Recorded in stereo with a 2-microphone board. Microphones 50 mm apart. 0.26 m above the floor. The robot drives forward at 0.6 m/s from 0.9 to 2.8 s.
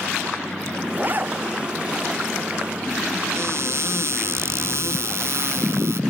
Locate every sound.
1.0 s a zipper: 35° right (ahead or behind)
3.4 s a cupboard door: 65° right (ahead or behind)